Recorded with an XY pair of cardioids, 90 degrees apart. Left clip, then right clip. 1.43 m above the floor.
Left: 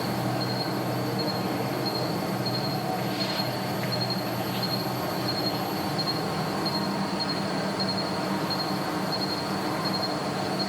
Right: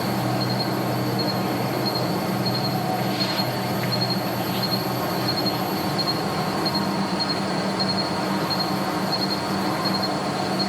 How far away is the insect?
About 1.2 m.